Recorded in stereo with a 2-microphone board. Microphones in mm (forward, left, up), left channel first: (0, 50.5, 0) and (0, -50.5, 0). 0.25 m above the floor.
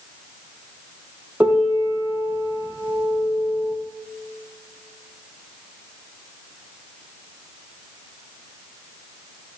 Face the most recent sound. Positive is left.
turn(degrees=-15)  # may be behind; listen again after turning